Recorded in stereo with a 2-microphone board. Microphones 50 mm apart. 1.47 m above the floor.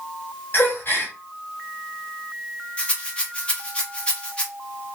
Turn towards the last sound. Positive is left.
turn(degrees=20)  # may be behind; listen again after turning